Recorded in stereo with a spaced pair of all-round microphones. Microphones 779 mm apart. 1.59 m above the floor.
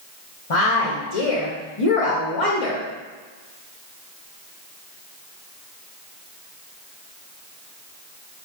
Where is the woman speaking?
45° left (ahead or behind), 0.7 m.